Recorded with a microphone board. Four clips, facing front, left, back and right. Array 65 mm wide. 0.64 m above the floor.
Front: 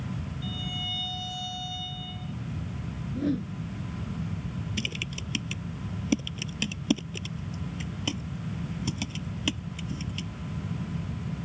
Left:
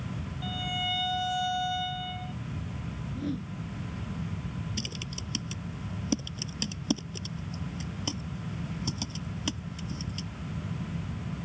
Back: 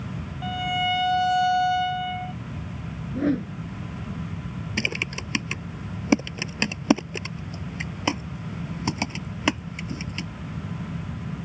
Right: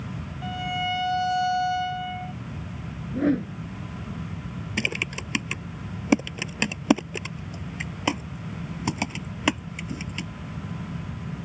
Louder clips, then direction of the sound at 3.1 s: Right 12 dB, back 5 dB; 120° right.